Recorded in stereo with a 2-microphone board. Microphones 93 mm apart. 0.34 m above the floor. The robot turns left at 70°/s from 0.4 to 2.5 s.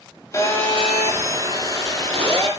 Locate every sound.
0.3 s a phone buzzing: 35° left, 7 m; by 2.5 s 110° right, 7 m